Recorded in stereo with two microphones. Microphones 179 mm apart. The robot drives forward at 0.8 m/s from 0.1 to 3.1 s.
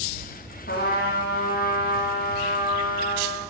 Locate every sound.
0.7 s a trumpet: 75° left (ahead or behind), 3.5 m; by 3.4 s 65° left (ahead or behind), 4 m